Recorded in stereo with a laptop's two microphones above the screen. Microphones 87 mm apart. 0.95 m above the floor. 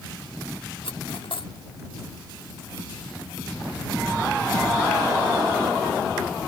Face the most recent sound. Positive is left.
turn(degrees=80)